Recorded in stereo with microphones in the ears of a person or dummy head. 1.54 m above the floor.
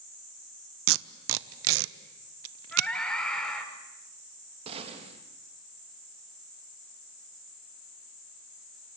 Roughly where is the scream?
Centre.